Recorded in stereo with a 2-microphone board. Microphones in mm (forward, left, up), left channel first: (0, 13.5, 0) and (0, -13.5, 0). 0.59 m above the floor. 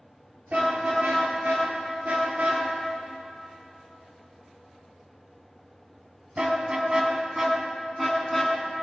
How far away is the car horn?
About 5 m.